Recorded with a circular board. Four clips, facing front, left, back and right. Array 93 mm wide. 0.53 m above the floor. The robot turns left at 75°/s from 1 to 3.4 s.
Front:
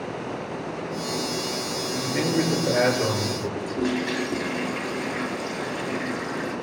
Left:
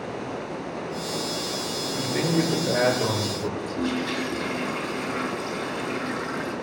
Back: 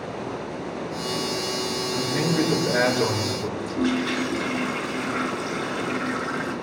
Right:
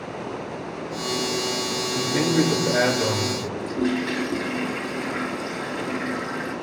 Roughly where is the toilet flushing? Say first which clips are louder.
Right 5 dB, back 3 dB; behind.